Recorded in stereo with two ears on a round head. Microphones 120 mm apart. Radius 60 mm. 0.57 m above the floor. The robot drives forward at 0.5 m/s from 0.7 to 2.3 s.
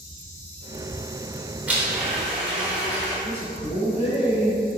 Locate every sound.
1.7 s a blender: 10° right (ahead or behind), 0.9 m
3.2 s a man speaking: 55° left (ahead or behind), 1.9 m